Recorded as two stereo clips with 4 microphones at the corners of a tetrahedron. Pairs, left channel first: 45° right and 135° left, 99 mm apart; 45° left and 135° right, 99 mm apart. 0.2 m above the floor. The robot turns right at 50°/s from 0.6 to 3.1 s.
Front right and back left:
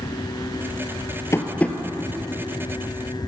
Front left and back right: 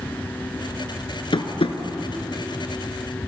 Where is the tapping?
15° left, 0.7 m; by 1.8 s 35° left, 0.7 m.